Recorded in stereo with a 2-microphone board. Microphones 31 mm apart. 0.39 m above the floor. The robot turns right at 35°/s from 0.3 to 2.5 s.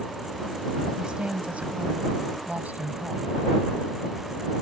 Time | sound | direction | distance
1.0 | a woman speaking | 145° right | ?